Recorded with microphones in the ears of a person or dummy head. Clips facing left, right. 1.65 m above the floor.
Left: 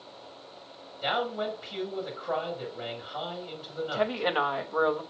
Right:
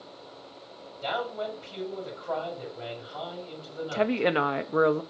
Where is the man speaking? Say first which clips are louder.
Left 1 dB; 15° left (ahead or behind), 6 m.